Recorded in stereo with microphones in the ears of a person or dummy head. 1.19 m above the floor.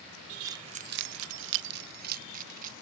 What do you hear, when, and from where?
0.5 s keys jangling: 15° right (ahead or behind); by 2.7 s 45° right (ahead or behind)